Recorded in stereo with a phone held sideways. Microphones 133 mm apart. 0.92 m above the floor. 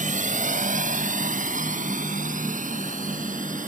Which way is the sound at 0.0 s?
75° right (ahead or behind).